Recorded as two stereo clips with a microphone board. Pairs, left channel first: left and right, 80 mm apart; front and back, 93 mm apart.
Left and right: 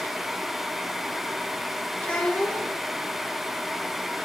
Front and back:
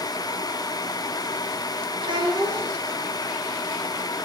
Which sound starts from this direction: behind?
A child speaking, at 2.0 s.